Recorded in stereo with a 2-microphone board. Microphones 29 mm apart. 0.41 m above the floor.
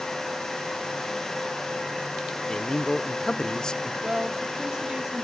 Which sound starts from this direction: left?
A man speaking, at 2.5 s.